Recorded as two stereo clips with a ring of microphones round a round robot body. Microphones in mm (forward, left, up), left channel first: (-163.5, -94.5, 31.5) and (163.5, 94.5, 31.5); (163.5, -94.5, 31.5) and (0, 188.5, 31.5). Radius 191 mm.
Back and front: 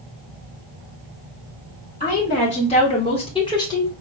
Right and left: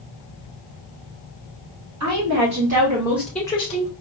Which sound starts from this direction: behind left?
A woman speaking, at 2.0 s.